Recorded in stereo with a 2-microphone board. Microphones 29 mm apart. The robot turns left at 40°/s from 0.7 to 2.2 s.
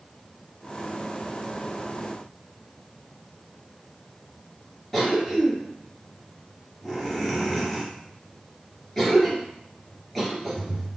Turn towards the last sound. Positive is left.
turn(degrees=10)  # may be behind; listen again after turning